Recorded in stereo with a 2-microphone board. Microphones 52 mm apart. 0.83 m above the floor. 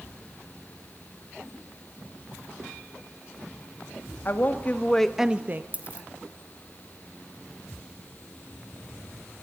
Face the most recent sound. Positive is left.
turn(degrees=-30)  # may be behind; listen again after turning